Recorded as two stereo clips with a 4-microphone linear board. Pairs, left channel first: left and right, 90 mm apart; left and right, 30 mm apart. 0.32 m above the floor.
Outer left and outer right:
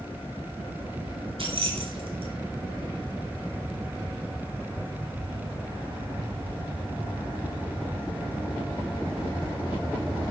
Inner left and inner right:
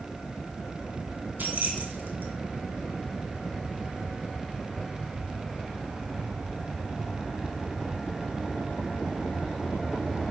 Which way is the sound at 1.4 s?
70° right (ahead or behind).